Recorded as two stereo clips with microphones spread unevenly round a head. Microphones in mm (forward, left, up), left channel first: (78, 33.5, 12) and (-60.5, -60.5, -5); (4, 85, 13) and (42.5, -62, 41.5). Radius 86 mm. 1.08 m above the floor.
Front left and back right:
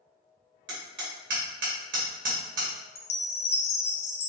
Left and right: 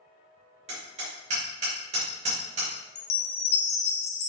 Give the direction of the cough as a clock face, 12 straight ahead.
No cough in this recording.